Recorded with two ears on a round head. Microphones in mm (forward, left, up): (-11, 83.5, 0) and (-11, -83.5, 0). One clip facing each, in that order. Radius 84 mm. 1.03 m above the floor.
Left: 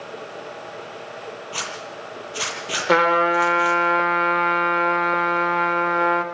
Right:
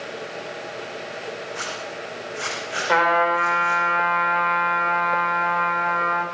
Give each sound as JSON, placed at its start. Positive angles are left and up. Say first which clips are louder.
{"t": 1.5, "sound": "a zipper", "louder": "right 1 dB", "side_deg": 85, "distance_m": 8.5}
{"t": 2.9, "sound": "a trumpet", "louder": "left 2 dB", "side_deg": 50, "distance_m": 3.0}